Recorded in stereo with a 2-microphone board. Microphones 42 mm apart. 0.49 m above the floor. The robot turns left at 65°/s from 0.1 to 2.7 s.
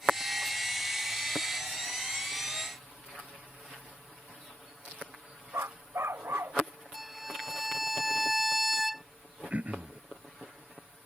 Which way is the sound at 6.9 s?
5° right (ahead or behind).